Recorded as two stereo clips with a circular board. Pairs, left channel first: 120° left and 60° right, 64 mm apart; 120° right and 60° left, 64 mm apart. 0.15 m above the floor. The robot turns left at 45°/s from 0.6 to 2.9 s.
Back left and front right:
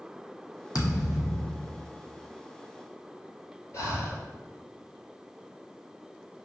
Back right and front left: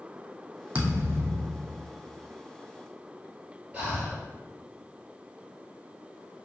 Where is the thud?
130° left, 1.1 m; by 1.9 s 75° left, 1.1 m.